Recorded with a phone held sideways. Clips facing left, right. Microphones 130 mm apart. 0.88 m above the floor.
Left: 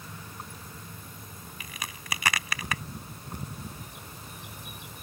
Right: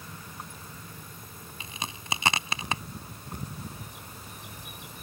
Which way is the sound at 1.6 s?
25° right (ahead or behind).